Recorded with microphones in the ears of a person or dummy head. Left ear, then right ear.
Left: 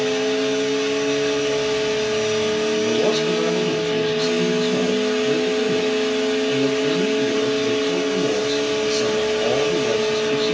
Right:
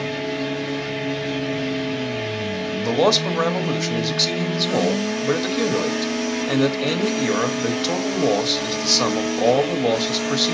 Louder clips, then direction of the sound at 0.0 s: Left 5 dB; 70° left (ahead or behind).